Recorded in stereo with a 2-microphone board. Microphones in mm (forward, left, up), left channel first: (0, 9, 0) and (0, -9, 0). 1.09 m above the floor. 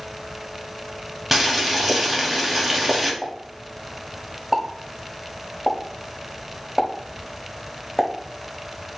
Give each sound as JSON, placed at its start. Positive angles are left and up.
{"t": 1.3, "sound": "boiling", "side_deg": -5, "distance_m": 1.2}
{"t": 3.2, "sound": "a pop", "side_deg": 0, "distance_m": 1.1}